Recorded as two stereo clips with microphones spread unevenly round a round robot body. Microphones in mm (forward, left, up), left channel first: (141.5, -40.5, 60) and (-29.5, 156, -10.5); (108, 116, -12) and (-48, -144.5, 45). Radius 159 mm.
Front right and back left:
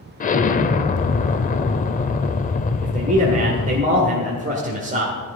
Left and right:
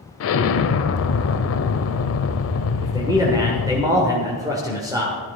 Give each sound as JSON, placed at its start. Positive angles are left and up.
{"t": 0.2, "sound": "an explosion", "azimuth_deg": 15, "distance_m": 0.7}
{"t": 2.8, "sound": "a man speaking", "azimuth_deg": 155, "distance_m": 1.4}